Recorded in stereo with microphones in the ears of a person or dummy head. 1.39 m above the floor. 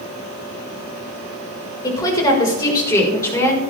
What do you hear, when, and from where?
1.8 s a woman speaking: 25° left (ahead or behind), 4.5 m; by 3.6 s 15° left (ahead or behind), 4 m